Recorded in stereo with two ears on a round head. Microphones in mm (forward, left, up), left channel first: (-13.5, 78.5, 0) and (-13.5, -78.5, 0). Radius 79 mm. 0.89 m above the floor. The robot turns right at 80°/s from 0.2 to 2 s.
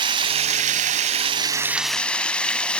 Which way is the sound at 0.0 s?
135° right.